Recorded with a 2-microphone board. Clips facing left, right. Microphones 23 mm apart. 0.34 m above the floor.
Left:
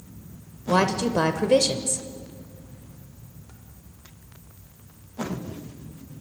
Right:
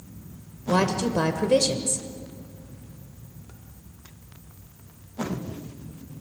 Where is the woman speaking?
15° left (ahead or behind), 1.0 m.